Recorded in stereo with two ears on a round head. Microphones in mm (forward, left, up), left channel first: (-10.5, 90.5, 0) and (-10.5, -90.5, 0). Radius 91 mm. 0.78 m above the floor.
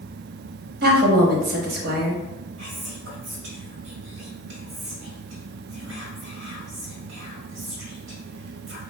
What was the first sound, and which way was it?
A woman speaking, 50° right (ahead or behind).